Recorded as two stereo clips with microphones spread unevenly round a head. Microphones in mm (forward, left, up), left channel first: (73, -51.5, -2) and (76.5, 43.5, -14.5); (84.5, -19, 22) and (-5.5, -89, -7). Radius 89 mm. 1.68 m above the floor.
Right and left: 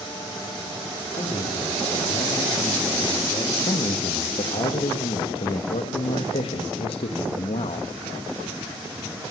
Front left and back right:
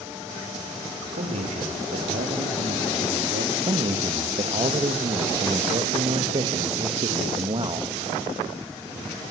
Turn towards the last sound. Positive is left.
turn(degrees=-95)